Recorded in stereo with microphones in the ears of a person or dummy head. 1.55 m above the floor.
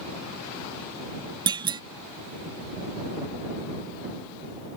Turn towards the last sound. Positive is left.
turn(degrees=-25)  # may be behind; listen again after turning